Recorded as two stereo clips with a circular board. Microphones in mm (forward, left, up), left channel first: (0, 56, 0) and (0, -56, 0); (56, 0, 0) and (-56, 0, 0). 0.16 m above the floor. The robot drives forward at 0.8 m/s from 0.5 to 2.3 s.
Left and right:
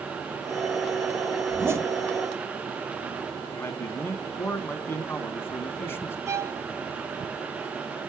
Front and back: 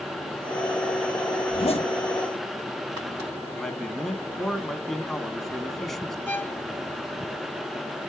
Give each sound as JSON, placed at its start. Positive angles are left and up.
{"t": 1.5, "sound": "a zipper", "azimuth_deg": -20, "distance_m": 1.4}
{"t": 3.5, "sound": "a man speaking", "azimuth_deg": 85, "distance_m": 1.0}
{"t": 6.3, "sound": "a violin", "azimuth_deg": -55, "distance_m": 0.5}